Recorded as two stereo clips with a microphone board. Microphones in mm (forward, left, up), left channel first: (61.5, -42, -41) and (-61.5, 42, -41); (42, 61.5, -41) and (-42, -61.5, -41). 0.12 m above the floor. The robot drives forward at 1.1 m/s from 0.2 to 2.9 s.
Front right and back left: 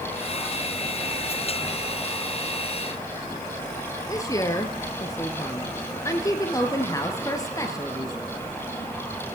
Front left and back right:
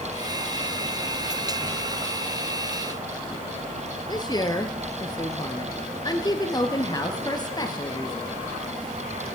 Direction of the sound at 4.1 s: 15° left.